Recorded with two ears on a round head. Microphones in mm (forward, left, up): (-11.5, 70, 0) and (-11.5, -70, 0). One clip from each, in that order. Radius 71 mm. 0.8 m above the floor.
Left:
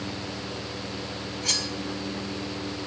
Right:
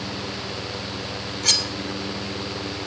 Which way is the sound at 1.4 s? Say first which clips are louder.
Right 6 dB; 45° right (ahead or behind).